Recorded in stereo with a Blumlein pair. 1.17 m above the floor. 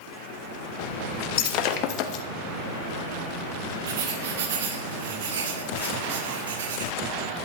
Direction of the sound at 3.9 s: 60° right.